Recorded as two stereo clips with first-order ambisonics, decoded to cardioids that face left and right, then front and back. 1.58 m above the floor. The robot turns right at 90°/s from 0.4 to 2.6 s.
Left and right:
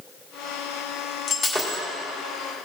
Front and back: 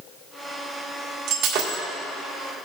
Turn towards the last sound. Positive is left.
turn(degrees=-105)